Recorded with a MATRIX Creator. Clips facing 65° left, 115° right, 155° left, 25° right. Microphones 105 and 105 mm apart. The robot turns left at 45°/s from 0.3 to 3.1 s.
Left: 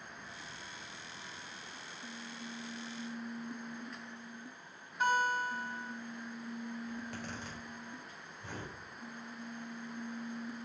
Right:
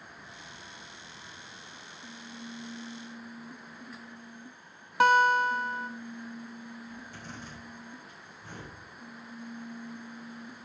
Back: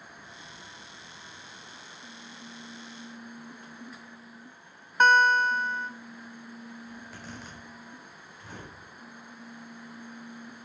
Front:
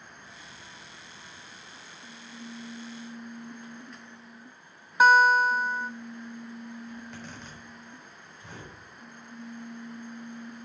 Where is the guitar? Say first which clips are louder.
Right 9 dB, front 2 dB; 105° right, 0.6 m.